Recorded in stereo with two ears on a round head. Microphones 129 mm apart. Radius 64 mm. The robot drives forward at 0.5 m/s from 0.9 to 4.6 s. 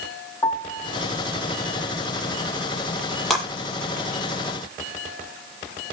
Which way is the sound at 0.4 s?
15° left (ahead or behind).